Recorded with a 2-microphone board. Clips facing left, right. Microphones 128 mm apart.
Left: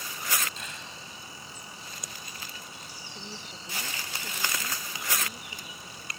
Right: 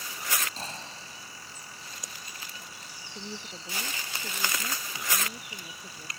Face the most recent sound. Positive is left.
turn(degrees=-15)  # may be behind; listen again after turning